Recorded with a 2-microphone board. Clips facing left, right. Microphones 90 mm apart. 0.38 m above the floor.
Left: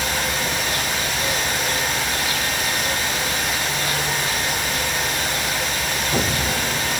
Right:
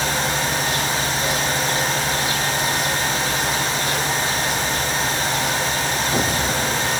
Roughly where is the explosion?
No explosion in this recording.